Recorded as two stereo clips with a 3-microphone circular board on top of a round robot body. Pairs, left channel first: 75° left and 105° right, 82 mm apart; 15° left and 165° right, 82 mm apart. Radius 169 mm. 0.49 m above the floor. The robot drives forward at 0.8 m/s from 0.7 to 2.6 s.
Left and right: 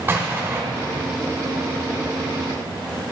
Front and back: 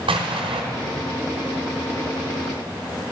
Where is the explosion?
170° right, 0.9 m.